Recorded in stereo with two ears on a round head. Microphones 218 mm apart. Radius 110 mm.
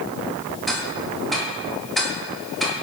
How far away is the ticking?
About 2.5 m.